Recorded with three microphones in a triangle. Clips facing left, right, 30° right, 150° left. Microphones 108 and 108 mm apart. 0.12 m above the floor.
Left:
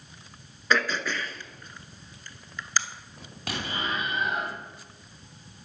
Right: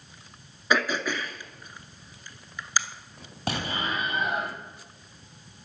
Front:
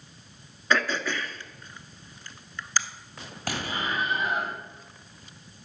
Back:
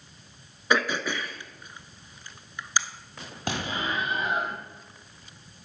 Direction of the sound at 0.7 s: 150° right.